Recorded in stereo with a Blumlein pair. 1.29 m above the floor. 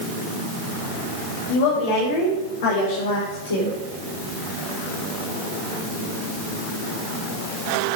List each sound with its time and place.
1.5 s a woman speaking: 45° left, 4.5 m; by 3.8 s 70° left, 3 m